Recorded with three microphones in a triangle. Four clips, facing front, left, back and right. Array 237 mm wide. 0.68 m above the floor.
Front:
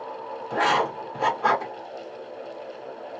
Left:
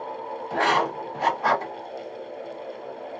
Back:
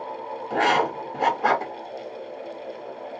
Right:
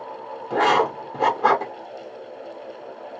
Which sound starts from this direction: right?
Writing, at 0.5 s.